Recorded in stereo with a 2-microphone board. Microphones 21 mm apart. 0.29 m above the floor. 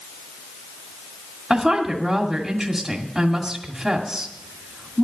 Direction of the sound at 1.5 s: 15° right (ahead or behind).